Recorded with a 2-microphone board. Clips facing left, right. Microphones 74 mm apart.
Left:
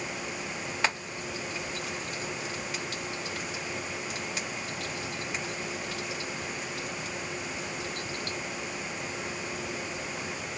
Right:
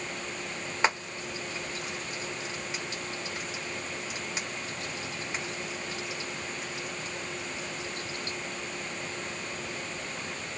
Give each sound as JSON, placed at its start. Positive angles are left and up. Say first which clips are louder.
{"t": 0.8, "sound": "frying", "louder": "right 4 dB", "side_deg": -20, "distance_m": 1.4}